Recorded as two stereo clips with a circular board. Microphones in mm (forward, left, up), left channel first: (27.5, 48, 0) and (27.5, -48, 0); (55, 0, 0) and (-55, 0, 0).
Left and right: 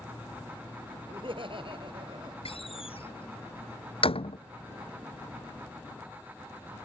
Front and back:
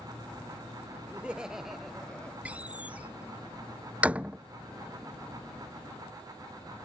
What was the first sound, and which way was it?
Laughter, 105° right.